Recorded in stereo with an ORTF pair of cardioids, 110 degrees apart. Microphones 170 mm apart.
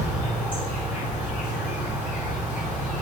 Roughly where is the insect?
Ahead.